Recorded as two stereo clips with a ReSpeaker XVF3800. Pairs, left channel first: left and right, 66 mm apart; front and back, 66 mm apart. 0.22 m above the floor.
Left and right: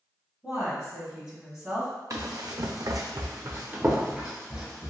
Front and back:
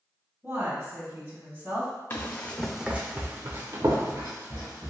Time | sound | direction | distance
0.4 | a woman speaking | 175° right | 1.9 m
2.1 | running footsteps | 55° right | 0.7 m